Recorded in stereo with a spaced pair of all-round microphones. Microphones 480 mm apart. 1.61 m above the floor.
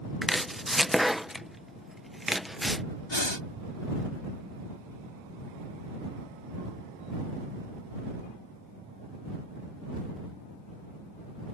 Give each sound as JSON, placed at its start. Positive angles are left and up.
{"t": 0.2, "sound": "chopping", "side_deg": 0}
{"t": 3.1, "sound": "breathing", "side_deg": 60}